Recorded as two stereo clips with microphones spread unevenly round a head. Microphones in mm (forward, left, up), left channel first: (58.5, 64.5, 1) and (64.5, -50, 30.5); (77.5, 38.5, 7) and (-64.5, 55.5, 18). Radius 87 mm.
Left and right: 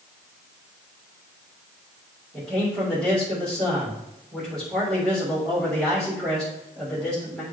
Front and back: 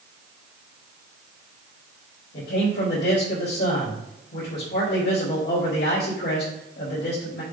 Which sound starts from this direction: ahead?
A man speaking, at 2.3 s.